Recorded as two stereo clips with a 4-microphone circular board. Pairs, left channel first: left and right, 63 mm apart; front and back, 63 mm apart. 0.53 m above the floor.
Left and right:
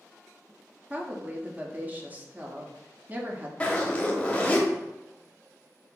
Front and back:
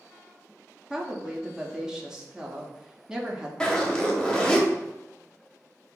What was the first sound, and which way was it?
A woman speaking, 115° right.